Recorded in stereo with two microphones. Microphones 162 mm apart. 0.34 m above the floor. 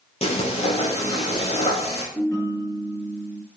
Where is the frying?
35° left (ahead or behind), 5 m.